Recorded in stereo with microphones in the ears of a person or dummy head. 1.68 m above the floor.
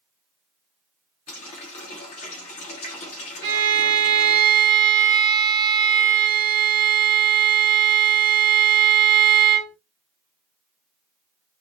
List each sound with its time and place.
1.3 s a running tap: 30° left (ahead or behind), 0.9 m
3.4 s a violin: 25° right (ahead or behind), 0.9 m